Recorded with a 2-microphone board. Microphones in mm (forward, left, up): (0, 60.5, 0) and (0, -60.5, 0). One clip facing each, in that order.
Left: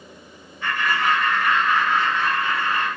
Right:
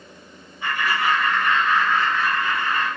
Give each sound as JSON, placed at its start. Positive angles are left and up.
{"t": 0.6, "sound": "laughter", "side_deg": -15, "distance_m": 1.2}